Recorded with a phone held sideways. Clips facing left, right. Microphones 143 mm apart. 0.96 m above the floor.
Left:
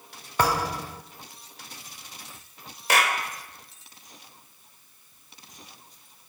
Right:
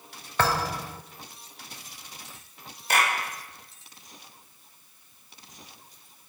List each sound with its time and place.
0.4 s a thud: 15° left (ahead or behind), 1.2 m
2.9 s a clap: 85° left, 2.5 m